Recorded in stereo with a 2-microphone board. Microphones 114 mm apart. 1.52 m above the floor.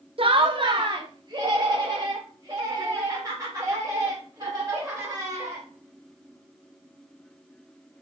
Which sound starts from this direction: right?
Laughter, at 0.2 s.